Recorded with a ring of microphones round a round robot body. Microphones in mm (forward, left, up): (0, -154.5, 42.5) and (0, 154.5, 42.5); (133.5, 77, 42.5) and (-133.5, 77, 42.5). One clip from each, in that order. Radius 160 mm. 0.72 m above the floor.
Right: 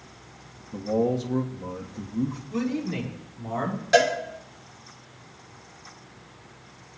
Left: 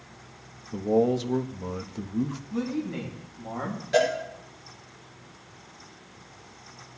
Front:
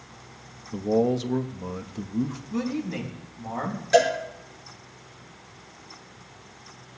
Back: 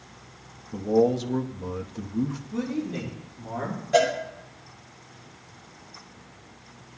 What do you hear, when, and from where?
0.7 s a man speaking: 70° left, 1.0 m
2.5 s a man speaking: 20° right, 5.5 m
3.9 s a cowbell: 35° right, 6 m